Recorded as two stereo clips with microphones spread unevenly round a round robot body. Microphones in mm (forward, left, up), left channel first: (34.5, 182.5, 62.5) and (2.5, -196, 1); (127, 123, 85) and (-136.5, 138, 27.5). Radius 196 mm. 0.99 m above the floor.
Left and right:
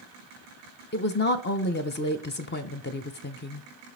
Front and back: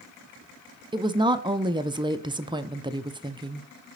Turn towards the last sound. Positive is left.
turn(degrees=145)